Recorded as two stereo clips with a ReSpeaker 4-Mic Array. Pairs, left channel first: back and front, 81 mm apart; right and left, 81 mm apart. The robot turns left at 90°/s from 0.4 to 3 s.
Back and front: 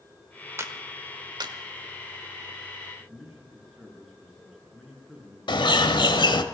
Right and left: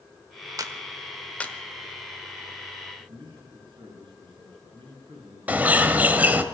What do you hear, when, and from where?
0.6 s a clap: 55° left, 1.3 m; by 1.5 s 30° right, 1.3 m
3.0 s a man speaking: 90° left, 8 m
5.5 s a bird: 160° left, 1.1 m